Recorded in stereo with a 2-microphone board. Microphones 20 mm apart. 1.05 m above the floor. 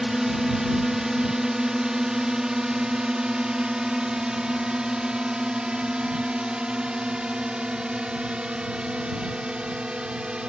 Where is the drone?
30° right (ahead or behind); by 10.5 s 70° right (ahead or behind).